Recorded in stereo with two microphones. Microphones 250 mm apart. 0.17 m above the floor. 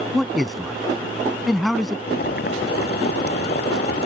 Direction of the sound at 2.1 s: 40° left (ahead or behind).